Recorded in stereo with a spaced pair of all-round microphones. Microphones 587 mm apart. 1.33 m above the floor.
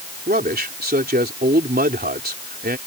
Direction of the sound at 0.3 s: 15° right (ahead or behind).